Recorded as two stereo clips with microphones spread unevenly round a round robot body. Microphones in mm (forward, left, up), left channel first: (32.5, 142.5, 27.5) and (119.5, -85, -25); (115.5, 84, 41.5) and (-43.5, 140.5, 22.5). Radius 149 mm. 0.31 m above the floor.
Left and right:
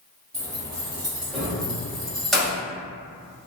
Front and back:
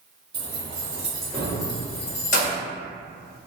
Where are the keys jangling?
150° right, 0.9 m; by 2.6 s 10° left, 0.9 m.